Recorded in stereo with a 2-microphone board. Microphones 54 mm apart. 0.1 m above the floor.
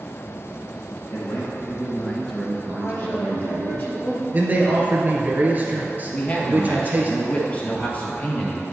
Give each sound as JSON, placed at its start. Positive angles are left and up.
{"t": 1.1, "sound": "a man speaking", "side_deg": 50, "distance_m": 2.5}
{"t": 2.8, "sound": "a woman speaking", "side_deg": 45, "distance_m": 2.5}
{"t": 4.3, "sound": "a man speaking", "side_deg": -35, "distance_m": 1.7}
{"t": 6.1, "sound": "a man speaking", "side_deg": 35, "distance_m": 1.8}